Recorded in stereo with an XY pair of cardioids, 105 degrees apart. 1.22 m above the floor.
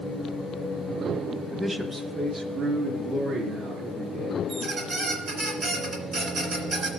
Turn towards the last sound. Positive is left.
turn(degrees=-55)